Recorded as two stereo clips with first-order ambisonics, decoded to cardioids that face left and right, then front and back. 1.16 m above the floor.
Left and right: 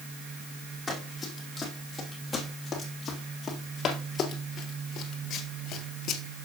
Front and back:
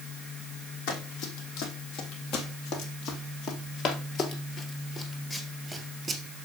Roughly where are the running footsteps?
Ahead.